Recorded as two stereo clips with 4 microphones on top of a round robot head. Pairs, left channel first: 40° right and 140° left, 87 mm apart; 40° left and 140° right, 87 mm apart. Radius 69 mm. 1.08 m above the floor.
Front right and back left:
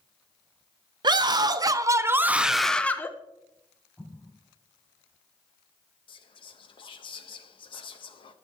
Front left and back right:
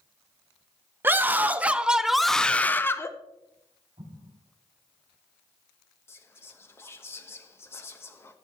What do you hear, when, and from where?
1.0 s a scream: 160° left, 1.2 m; by 3.1 s 5° left, 0.8 m
4.0 s an explosion: 115° right, 6.5 m
6.1 s whispering: 20° right, 1.3 m